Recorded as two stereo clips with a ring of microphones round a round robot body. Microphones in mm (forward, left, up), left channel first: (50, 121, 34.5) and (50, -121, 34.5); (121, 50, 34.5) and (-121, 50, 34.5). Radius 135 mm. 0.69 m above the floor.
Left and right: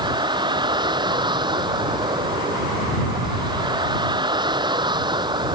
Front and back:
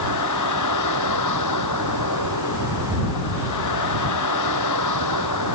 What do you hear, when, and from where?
0.0 s a vehicle: 20° right